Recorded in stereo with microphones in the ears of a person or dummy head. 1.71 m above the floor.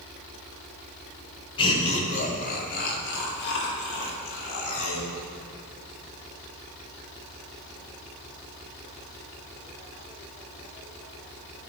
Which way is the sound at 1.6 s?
30° left (ahead or behind).